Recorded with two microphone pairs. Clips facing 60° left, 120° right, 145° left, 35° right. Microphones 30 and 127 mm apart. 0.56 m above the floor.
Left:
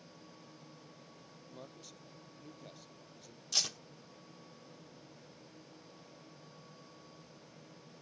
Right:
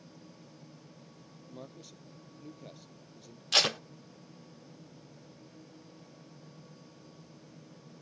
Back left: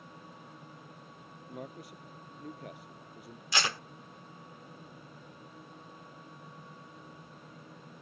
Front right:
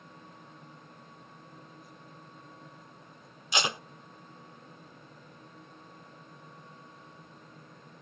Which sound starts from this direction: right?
Tape being pulled, at 3.5 s.